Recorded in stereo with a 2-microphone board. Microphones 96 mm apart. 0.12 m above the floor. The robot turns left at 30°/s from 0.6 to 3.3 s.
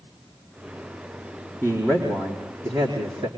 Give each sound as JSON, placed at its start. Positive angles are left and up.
{"t": 1.6, "sound": "a man speaking", "azimuth_deg": -25, "distance_m": 4.5}